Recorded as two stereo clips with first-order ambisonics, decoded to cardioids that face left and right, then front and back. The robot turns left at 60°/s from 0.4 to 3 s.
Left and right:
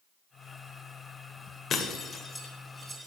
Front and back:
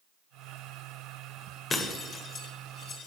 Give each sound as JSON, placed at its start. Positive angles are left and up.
{"t": 1.7, "sound": "breaking glass", "azimuth_deg": 55, "distance_m": 1.4}